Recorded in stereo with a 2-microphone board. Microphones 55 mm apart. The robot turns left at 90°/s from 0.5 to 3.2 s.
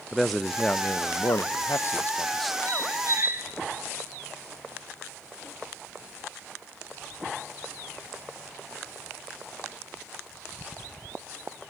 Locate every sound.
0.1 s a man speaking: straight behind, 0.6 m; by 2.6 s 5° right, 0.6 m
2.7 s a squeak: 85° right, 3 m; by 3.5 s 130° right, 3 m